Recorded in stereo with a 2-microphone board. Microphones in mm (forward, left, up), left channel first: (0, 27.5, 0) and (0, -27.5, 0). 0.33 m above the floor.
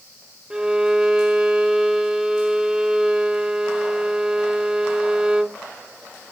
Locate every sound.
0.5 s a violin: 10° right (ahead or behind), 0.7 m